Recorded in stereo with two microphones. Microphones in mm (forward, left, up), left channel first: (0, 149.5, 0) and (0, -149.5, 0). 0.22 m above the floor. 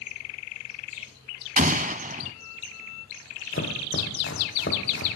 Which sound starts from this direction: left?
Chopping, at 3.5 s.